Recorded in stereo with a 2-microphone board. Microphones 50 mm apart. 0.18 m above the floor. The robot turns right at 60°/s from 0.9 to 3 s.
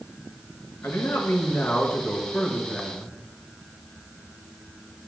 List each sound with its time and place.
0.8 s a man speaking: 85° left, 2.5 m; by 3.1 s 150° right, 2.5 m